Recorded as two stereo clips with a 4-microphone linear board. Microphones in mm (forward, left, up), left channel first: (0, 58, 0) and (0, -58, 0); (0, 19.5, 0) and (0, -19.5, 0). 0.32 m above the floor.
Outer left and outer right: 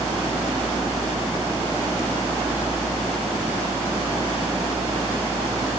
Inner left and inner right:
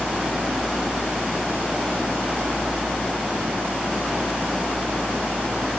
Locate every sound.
Only background noise.